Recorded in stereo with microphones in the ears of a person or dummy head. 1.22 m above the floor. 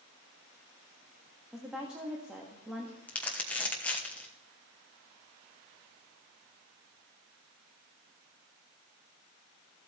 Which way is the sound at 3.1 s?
10° left (ahead or behind).